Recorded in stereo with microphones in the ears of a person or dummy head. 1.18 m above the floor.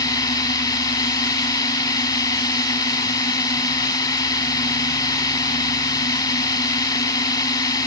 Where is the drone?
15° left (ahead or behind).